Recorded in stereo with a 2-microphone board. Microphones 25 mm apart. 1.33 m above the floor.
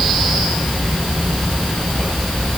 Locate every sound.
Only background noise.